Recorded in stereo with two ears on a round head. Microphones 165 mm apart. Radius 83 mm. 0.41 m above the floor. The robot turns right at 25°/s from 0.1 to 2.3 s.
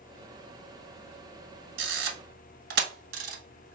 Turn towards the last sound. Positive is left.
turn(degrees=-55)  # may be behind; listen again after turning